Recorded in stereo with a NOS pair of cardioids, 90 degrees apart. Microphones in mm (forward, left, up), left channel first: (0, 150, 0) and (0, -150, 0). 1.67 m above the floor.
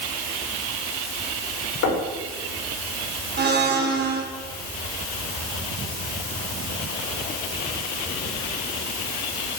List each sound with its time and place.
1.8 s knocking: 70° left, 6 m
3.4 s a blender: 35° right, 3.5 m